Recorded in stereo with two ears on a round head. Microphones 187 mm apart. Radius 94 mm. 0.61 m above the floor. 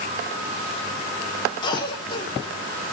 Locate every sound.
1.6 s a cough: 25° left (ahead or behind), 2 m